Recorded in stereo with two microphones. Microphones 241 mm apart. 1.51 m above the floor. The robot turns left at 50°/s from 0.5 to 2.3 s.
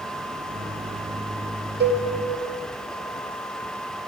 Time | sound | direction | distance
1.8 | a cowbell | 45° right (ahead or behind) | 0.7 m